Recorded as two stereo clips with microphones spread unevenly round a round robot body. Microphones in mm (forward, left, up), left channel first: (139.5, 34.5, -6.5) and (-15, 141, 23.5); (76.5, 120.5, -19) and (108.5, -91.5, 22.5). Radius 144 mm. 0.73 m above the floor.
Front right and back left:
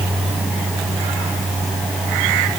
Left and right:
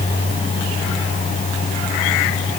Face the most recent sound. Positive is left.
No sound to turn to.